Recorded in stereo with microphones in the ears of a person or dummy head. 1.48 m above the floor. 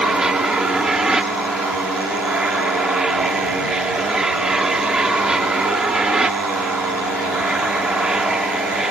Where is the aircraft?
5° right (ahead or behind).